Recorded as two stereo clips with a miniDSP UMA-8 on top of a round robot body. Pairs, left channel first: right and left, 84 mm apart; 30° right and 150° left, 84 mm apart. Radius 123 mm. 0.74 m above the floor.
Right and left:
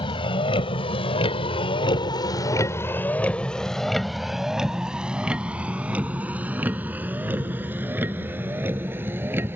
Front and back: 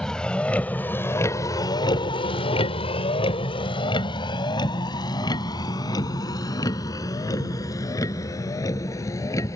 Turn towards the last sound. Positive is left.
turn(degrees=25)